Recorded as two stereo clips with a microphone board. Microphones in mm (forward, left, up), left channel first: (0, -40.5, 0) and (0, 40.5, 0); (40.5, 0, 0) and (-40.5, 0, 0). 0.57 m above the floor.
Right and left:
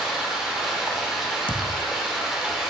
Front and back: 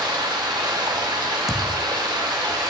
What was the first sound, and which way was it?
Running water, 175° left.